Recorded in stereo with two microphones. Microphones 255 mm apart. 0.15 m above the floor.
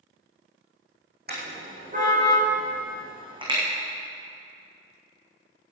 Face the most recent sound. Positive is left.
turn(degrees=-15)  # may be behind; listen again after turning